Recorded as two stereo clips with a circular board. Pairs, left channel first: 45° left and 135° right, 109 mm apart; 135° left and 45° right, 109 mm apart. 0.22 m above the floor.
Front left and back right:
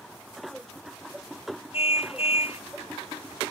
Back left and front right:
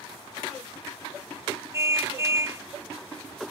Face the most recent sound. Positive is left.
turn(degrees=20)